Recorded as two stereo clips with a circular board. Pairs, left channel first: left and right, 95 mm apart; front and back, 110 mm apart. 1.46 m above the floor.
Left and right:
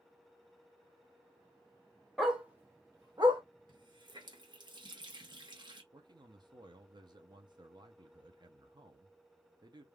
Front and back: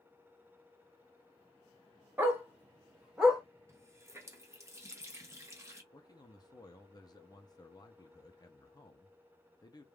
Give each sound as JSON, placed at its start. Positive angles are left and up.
{"t": 2.2, "sound": "a dog barking", "azimuth_deg": 180, "distance_m": 0.9}
{"t": 3.7, "sound": "a running tap", "azimuth_deg": -120, "distance_m": 0.8}
{"t": 5.9, "sound": "a man speaking", "azimuth_deg": -50, "distance_m": 0.6}